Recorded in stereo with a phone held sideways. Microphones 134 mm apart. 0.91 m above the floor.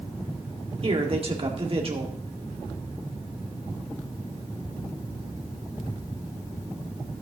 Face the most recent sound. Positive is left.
turn(degrees=-45)  # may be behind; listen again after turning